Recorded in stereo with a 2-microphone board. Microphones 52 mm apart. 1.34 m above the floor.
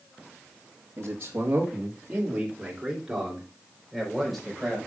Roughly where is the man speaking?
Right.